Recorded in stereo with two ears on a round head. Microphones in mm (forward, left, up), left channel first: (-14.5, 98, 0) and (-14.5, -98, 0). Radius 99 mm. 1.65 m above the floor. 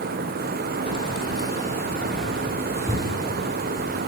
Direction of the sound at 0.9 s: 30° left (ahead or behind).